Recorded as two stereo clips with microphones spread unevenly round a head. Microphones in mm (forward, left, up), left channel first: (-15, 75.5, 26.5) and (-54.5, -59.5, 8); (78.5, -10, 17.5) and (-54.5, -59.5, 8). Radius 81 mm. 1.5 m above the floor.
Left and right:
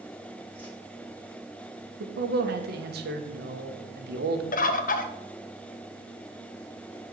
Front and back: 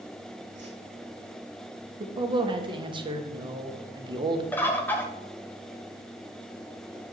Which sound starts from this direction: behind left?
A whoosh, at 0.6 s.